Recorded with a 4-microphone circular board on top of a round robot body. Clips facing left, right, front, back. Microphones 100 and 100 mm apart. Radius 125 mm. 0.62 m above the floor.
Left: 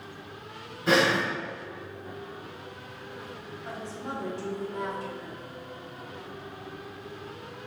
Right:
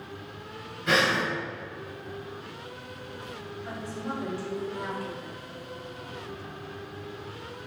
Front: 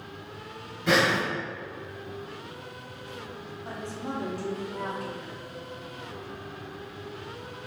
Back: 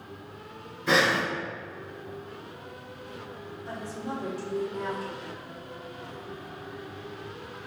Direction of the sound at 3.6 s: 25° left.